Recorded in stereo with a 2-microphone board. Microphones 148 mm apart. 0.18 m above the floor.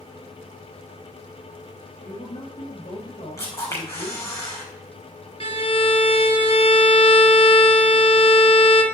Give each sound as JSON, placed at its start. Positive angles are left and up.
{"t": 2.0, "sound": "a man speaking", "side_deg": 45, "distance_m": 2.0}
{"t": 3.4, "sound": "a camera shutter", "side_deg": 20, "distance_m": 4.5}
{"t": 5.4, "sound": "a violin", "side_deg": 40, "distance_m": 1.4}